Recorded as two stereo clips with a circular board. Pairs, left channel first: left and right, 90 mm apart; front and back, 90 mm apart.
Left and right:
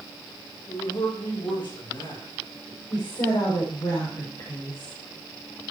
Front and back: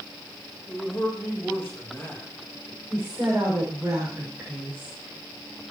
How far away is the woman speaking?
About 6.5 m.